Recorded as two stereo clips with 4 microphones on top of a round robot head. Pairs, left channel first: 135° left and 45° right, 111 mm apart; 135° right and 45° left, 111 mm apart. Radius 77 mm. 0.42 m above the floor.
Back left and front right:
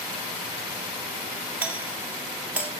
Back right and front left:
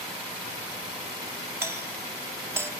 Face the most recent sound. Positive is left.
turn(degrees=15)